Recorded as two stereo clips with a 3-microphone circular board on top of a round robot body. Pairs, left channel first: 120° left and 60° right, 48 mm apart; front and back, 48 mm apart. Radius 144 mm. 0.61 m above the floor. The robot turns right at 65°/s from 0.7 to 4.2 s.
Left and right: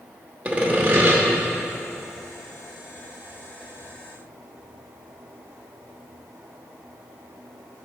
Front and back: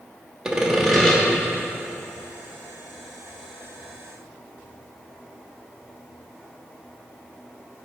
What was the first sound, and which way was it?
Sawing, 105° right.